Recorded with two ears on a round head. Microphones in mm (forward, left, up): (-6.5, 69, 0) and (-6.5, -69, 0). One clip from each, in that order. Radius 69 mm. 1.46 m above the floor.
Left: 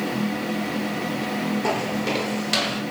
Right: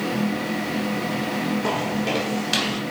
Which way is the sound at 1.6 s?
30° left (ahead or behind).